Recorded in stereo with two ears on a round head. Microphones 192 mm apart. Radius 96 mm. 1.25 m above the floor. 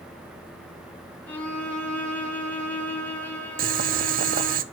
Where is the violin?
10° left (ahead or behind), 2.5 m.